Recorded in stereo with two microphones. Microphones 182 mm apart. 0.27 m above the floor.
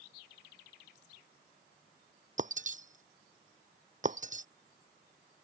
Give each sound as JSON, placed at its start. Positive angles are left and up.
{"t": 2.4, "sound": "breaking glass", "side_deg": -45}